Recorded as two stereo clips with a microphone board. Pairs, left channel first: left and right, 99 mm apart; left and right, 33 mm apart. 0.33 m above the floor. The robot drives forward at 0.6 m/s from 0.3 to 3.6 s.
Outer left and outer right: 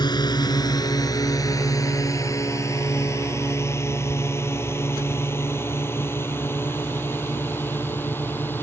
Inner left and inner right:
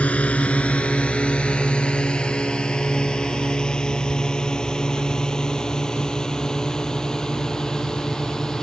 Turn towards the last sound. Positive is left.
turn(degrees=20)  # may be behind; listen again after turning